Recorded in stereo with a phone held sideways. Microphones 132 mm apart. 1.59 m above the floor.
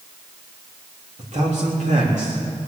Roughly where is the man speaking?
Right.